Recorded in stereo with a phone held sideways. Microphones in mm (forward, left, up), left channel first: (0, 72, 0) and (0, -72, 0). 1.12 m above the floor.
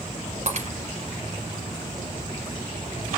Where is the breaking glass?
50° right (ahead or behind), 3 m.